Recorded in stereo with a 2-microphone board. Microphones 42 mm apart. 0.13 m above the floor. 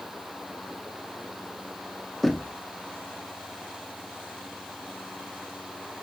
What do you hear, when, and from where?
2.2 s knocking: 5° left (ahead or behind), 1.0 m